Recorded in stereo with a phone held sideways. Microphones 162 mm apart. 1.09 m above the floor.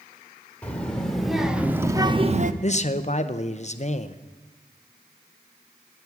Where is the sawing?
I don't hear sawing.